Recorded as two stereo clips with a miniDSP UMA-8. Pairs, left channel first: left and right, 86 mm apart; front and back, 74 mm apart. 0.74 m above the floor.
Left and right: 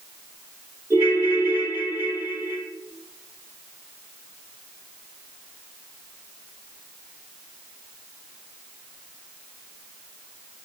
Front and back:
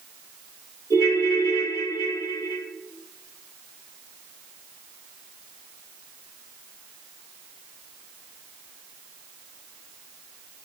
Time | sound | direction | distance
0.9 | a ringtone | 30° right | 1.7 m